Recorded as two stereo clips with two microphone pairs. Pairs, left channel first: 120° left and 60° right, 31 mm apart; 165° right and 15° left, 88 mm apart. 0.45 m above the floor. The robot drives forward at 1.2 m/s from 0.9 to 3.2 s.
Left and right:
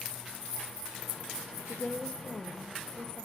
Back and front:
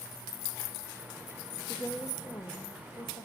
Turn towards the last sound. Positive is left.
turn(degrees=170)